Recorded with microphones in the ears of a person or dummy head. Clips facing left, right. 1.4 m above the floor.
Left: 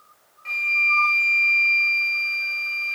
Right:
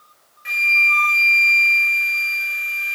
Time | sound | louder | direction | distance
0.5 | a flute | right 4 dB | 15° right (ahead or behind) | 1.1 m